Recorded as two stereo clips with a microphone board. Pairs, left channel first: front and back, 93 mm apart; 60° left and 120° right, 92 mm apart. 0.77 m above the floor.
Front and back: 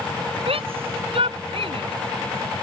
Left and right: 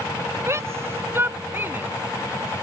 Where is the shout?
Straight behind; by 1.9 s 170° left.